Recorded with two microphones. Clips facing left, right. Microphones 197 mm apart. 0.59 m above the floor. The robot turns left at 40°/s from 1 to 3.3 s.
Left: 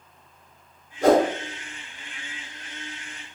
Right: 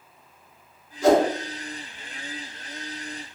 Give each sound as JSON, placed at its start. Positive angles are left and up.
{"t": 1.0, "sound": "a whoosh", "side_deg": 60, "distance_m": 0.8}